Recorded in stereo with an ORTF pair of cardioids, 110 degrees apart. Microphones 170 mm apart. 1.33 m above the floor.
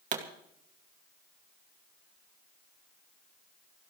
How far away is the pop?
About 2.5 m.